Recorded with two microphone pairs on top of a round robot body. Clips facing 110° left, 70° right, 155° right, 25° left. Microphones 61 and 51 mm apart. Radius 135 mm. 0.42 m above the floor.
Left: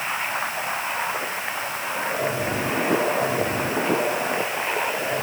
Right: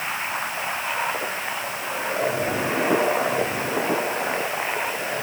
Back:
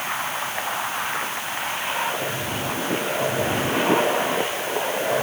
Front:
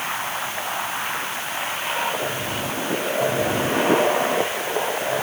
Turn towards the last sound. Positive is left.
No sound to turn to.